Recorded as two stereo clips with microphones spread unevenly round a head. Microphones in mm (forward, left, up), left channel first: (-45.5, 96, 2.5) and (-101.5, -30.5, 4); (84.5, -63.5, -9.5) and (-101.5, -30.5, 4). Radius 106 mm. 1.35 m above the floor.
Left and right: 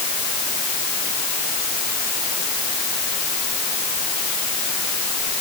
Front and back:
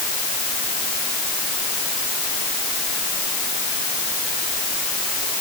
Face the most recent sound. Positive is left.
No sound to turn to.